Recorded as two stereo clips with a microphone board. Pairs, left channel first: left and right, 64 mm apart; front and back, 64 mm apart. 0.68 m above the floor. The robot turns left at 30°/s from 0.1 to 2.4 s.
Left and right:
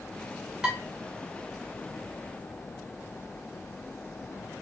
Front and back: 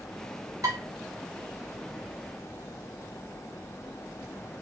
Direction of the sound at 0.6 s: 170° right.